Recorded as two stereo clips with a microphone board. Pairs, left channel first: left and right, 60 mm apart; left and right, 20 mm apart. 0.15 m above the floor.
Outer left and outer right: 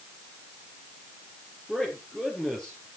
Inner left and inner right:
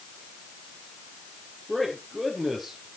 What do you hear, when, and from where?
1.7 s a man speaking: 5° left (ahead or behind), 3 m